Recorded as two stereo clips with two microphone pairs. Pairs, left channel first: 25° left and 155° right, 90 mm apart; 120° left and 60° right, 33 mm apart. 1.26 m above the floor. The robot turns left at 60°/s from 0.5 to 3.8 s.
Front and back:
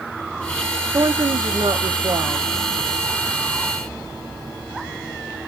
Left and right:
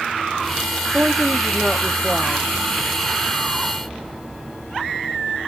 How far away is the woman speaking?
About 0.9 m.